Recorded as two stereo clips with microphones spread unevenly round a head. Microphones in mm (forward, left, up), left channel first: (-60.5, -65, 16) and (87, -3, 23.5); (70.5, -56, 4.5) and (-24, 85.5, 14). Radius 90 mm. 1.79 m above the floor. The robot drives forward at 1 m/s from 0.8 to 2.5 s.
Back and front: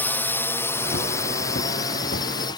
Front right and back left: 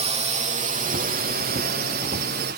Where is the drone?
135° left; by 2.6 s 140° left.